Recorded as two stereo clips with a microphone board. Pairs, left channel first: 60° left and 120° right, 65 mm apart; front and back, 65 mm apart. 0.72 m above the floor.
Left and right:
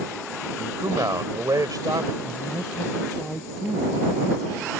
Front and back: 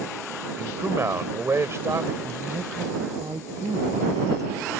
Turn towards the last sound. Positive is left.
turn(degrees=150)